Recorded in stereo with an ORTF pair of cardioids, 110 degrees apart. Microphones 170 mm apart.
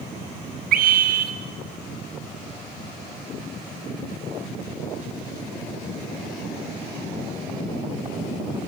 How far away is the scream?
About 3 m.